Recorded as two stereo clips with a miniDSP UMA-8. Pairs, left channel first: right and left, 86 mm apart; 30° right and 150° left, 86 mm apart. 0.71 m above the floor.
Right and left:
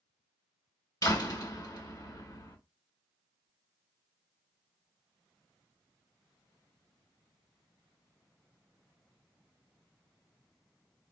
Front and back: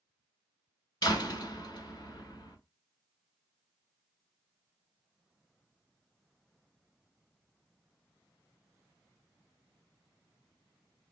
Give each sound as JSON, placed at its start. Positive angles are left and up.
{"t": 1.0, "sound": "a door slam", "azimuth_deg": -60, "distance_m": 1.7}